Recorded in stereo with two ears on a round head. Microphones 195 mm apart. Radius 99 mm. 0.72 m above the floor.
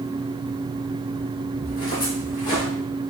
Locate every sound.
1.6 s footsteps: 40° left (ahead or behind), 1.8 m; by 2.6 s 35° left (ahead or behind), 2.5 m